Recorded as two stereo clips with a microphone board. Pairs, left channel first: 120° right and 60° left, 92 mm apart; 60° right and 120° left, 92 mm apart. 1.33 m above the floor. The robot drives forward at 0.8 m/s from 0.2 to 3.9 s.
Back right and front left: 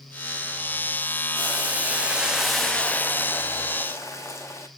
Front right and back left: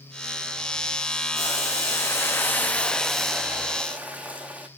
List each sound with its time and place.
1.3 s boiling: 5° right, 1.4 m; by 4.7 s 170° right, 1.0 m